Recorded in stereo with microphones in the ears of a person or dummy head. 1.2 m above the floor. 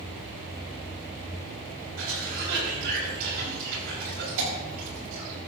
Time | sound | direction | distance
2.0 | a cough | 70° right (ahead or behind) | 7 m